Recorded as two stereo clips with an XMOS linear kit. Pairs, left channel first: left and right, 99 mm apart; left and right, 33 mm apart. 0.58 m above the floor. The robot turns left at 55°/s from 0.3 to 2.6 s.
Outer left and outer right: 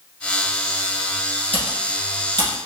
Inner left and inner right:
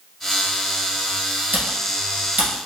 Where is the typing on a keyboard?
70° right (ahead or behind), 1.4 m; by 2.5 s 45° right (ahead or behind), 1.4 m.